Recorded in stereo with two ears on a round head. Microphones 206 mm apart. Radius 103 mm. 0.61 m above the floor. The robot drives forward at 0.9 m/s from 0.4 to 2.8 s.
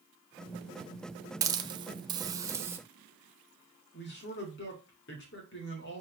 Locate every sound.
1.4 s a hiss: 15° right (ahead or behind), 0.7 m; by 2.8 s 10° right (ahead or behind), 1.0 m
3.9 s a man speaking: 55° left (ahead or behind), 2.5 m